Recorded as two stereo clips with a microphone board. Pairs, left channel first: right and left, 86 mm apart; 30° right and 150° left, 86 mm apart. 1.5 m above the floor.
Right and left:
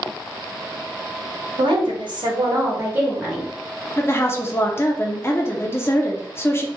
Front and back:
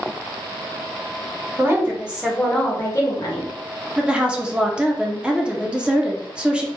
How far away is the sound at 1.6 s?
About 1.2 m.